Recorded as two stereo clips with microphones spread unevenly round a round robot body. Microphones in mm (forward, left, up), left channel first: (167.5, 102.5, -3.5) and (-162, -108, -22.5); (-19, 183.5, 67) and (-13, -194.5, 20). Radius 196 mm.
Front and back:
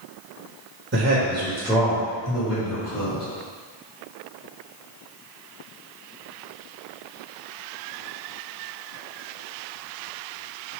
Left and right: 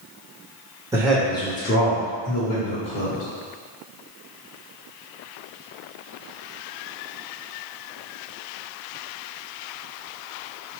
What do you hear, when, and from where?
0.9 s a man speaking: 150° right, 1.0 m; by 3.2 s 75° left, 1.6 m